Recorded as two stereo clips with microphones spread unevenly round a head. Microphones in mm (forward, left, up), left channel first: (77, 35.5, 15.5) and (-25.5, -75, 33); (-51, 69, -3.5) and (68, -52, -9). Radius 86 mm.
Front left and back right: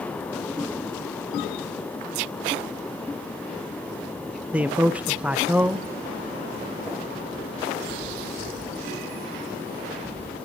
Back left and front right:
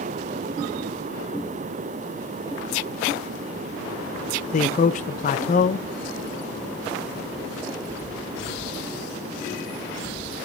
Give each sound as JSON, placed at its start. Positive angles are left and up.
{"t": 4.5, "sound": "a man speaking", "azimuth_deg": 140, "distance_m": 0.5}